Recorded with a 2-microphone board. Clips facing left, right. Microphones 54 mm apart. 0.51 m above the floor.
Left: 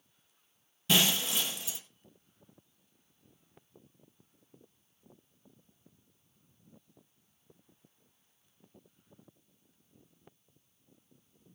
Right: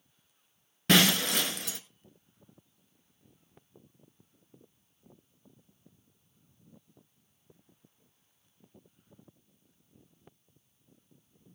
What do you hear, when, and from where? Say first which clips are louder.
0.9 s breaking glass: right 5 dB; 75° right (ahead or behind), 1.2 m